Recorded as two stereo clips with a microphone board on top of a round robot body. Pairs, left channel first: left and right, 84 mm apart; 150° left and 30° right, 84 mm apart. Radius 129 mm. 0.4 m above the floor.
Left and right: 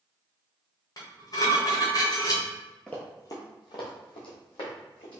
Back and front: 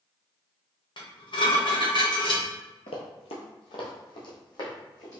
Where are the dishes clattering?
130° left, 1.5 m.